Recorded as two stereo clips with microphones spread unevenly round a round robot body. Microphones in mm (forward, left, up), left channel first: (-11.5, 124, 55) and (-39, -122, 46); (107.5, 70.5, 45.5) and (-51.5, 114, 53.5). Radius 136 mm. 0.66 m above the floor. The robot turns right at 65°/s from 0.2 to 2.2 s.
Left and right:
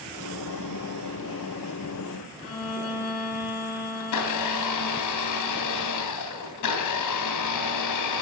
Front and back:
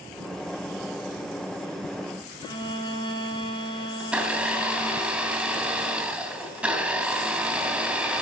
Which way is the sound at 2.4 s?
50° left.